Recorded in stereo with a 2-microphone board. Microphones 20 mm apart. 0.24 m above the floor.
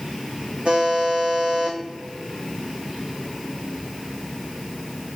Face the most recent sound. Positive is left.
turn(degrees=-80)